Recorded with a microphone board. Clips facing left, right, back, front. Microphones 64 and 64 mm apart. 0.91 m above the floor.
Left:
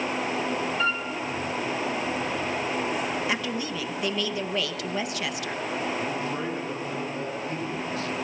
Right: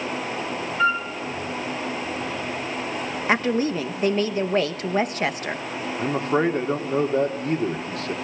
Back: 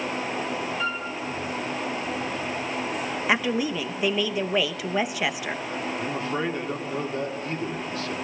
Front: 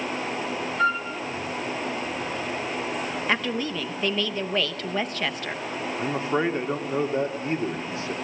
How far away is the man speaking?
About 1.9 m.